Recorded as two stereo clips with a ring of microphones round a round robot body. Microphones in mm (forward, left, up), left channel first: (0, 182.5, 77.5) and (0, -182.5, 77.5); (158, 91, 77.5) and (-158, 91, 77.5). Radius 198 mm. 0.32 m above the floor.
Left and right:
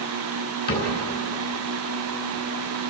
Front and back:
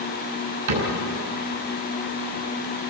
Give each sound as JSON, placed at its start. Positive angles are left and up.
{"t": 0.7, "sound": "a cupboard door", "azimuth_deg": 155, "distance_m": 5.5}